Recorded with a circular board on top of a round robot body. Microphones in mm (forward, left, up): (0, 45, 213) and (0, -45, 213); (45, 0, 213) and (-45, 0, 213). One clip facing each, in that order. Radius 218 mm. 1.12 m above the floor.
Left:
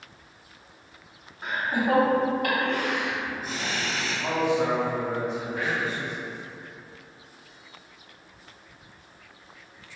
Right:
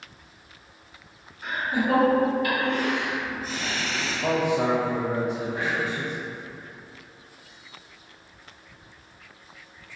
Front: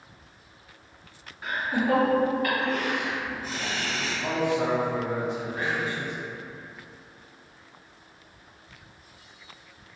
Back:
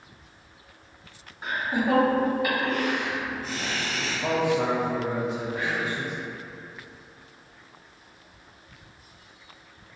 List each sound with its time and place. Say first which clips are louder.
1.4 s laughter: even, even; 125° left, 1.5 m; by 4.2 s 45° left, 1.2 m
4.2 s a man speaking: right 1 dB, back 2 dB; 125° right, 0.6 m
5.6 s whispering: right 1 dB, even; 35° right, 0.8 m